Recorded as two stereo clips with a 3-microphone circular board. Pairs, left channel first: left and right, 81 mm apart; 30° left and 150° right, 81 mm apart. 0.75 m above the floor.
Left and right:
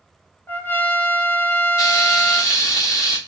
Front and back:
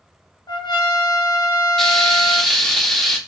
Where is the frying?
115° left, 1.0 m.